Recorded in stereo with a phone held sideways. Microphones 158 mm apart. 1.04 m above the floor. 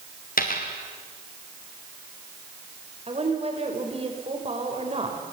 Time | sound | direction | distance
0.4 | a dropped coin | 65° left (ahead or behind) | 3.5 m
3.1 | a woman speaking | 40° right (ahead or behind) | 5 m